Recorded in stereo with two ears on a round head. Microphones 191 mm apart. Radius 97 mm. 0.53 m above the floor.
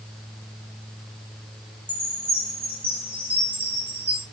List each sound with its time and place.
1.9 s a chime: 10° right (ahead or behind), 3 m